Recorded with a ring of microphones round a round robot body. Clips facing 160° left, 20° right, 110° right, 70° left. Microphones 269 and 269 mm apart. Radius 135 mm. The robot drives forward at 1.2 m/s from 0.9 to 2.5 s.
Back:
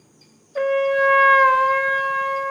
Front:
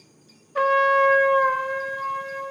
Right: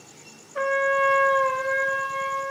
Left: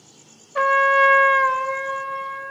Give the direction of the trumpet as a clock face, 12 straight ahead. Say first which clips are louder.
Back 3 dB, left 2 dB; 10 o'clock.